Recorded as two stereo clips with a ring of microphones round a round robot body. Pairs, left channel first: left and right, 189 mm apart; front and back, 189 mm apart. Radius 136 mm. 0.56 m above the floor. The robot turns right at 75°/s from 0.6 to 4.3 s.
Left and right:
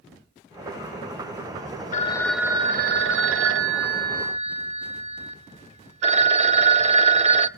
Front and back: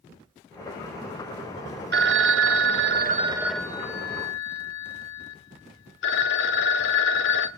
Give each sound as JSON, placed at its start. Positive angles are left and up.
{"t": 1.9, "sound": "a phone ringing", "azimuth_deg": 150, "distance_m": 0.7}